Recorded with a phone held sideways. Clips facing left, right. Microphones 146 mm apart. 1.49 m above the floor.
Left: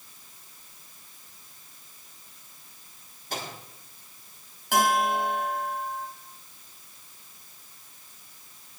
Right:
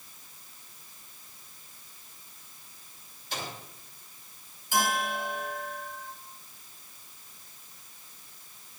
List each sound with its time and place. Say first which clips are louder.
3.3 s a microwave: left 2 dB; 50° left (ahead or behind), 4 m
4.7 s a bell: left 6 dB; 70° left (ahead or behind), 2.5 m